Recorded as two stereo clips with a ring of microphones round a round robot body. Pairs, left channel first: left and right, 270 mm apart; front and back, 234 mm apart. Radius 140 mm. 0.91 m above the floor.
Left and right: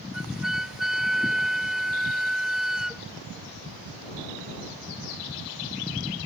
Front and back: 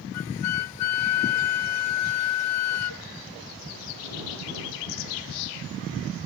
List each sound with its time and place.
0.1 s a flute: straight ahead